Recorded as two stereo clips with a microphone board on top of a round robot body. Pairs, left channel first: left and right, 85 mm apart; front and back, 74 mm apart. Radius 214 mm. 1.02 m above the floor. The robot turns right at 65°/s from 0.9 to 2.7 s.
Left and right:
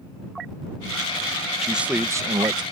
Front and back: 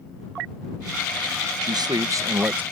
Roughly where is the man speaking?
Behind.